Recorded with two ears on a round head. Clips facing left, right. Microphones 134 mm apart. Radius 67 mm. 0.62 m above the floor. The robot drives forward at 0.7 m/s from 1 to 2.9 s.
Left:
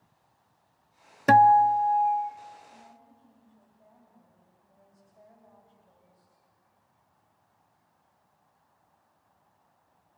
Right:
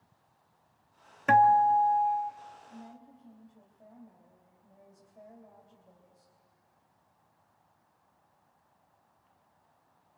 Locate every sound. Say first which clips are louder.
1.3 s a guitar: left 4 dB; 40° left (ahead or behind), 0.6 m; by 2.3 s 20° left (ahead or behind), 1.1 m
2.7 s a woman speaking: right 4 dB; 30° right (ahead or behind), 4 m; by 6.3 s 25° right (ahead or behind), 4 m